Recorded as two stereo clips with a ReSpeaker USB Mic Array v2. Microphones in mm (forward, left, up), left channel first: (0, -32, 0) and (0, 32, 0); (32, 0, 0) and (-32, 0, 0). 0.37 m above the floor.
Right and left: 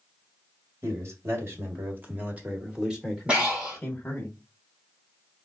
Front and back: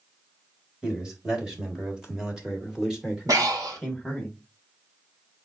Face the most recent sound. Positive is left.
turn(degrees=160)